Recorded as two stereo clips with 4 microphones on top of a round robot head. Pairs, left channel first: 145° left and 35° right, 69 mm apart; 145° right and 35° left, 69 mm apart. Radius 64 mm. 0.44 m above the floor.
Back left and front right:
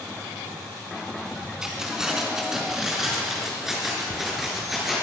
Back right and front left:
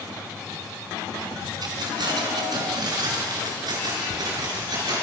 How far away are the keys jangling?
About 4 m.